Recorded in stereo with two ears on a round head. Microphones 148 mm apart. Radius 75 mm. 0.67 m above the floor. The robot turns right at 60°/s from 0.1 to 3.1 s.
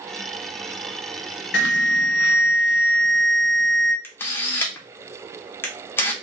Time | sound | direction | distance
1.5 | an alarm | 65° left | 0.6 m
4.0 | a camera shutter | 15° left (ahead or behind) | 0.6 m